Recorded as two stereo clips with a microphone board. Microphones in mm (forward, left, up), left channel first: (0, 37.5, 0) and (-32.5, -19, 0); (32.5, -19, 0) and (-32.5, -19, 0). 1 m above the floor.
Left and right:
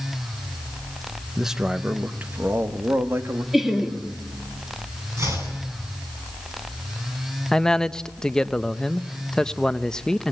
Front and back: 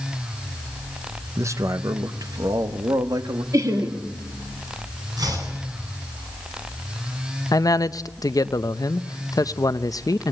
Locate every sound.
1.4 s a man speaking: 150° left, 0.7 m; by 3.4 s 170° right, 1.7 m
3.5 s laughter: 150° left, 2.5 m
5.2 s chopping: 165° right, 9 m
7.5 s a man speaking: 20° right, 0.6 m